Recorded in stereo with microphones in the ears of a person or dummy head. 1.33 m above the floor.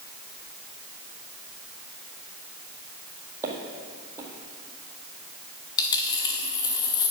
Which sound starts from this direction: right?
Footsteps, at 3.4 s.